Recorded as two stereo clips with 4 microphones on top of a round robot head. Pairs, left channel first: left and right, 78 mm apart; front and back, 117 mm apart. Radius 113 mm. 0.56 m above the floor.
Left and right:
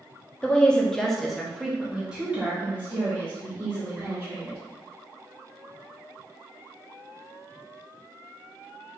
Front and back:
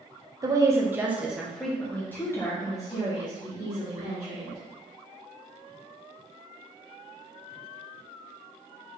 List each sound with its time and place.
0.4 s a woman speaking: 155° left, 1.1 m; by 4.6 s 30° right, 1.8 m